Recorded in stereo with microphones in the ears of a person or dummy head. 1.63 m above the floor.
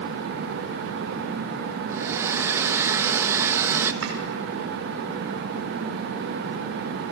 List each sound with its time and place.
1.9 s a hair dryer: 15° right (ahead or behind), 1.3 m
4.0 s chopping: 75° right (ahead or behind), 5.5 m